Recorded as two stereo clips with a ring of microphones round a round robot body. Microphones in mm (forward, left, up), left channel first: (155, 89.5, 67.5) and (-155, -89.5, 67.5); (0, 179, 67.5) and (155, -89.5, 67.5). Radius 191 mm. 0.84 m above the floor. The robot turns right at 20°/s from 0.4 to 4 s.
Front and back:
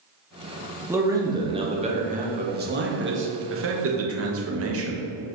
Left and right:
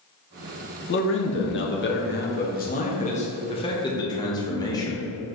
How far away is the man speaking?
About 1.2 m.